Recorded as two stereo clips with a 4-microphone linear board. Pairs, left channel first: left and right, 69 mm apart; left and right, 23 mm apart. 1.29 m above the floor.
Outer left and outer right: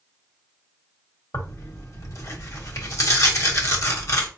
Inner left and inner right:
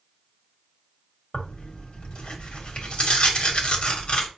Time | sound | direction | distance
1.3 | tearing paper | 45° left (ahead or behind) | 1.0 m